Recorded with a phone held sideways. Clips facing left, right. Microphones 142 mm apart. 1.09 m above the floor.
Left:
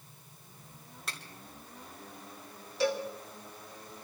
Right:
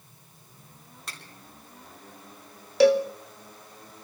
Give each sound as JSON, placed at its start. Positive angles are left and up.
{"t": 1.1, "sound": "a finger snap", "side_deg": 0, "distance_m": 3.0}
{"t": 2.8, "sound": "a cowbell", "side_deg": -75, "distance_m": 0.7}